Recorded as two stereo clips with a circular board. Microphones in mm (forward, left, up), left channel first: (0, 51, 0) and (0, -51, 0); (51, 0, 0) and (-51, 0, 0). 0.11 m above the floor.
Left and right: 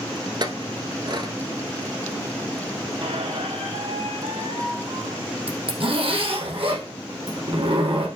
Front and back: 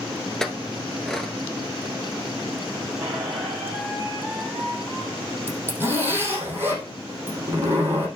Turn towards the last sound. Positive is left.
turn(degrees=-110)